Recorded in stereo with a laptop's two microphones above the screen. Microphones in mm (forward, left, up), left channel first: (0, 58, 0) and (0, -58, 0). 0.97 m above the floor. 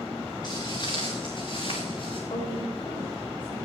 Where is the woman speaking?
55° left (ahead or behind), 4 m.